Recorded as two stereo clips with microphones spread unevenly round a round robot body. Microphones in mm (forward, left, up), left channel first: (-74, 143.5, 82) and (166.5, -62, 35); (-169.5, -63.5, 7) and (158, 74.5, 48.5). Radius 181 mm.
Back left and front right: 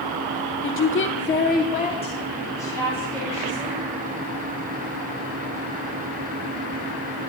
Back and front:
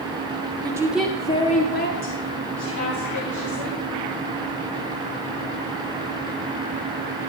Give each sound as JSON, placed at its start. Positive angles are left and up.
{"t": 0.6, "sound": "a woman speaking", "azimuth_deg": 105, "distance_m": 1.2}